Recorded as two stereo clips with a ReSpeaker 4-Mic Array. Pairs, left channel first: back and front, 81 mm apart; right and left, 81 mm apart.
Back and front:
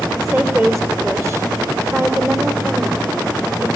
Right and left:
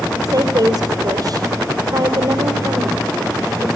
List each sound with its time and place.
0.2 s a woman speaking: 50° left, 3 m